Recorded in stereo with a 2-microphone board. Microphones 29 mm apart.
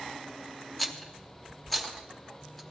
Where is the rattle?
5° left (ahead or behind), 0.7 m.